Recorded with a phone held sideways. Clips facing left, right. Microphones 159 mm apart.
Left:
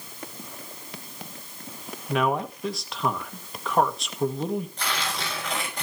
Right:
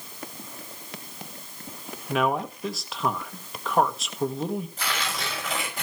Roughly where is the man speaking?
Centre.